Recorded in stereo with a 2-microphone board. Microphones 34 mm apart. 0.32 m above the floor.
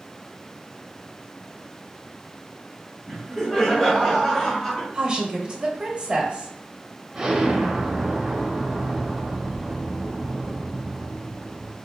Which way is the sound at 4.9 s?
25° right (ahead or behind).